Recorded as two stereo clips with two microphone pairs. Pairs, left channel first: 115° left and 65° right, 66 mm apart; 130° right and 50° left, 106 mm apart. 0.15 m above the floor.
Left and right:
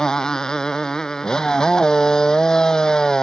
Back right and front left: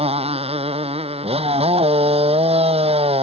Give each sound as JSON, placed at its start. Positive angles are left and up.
{"t": 0.0, "sound": "a motorcycle", "azimuth_deg": 30}